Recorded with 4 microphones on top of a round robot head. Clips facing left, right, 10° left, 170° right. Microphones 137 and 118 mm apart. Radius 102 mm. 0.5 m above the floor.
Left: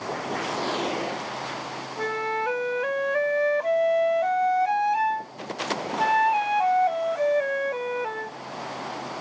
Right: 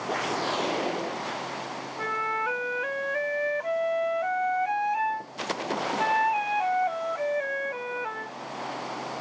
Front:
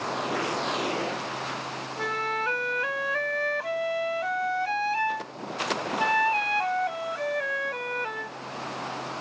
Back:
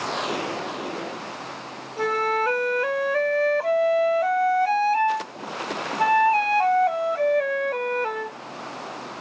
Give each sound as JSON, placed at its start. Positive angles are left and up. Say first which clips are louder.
{"t": 2.0, "sound": "a flute", "louder": "left 5 dB, back 8 dB", "azimuth_deg": 150}